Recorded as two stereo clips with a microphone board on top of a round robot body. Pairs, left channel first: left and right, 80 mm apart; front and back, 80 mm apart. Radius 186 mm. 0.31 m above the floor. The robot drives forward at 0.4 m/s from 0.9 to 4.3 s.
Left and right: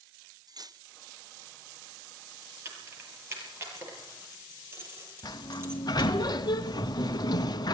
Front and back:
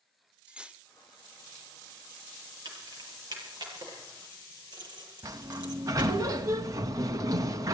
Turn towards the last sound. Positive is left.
turn(degrees=130)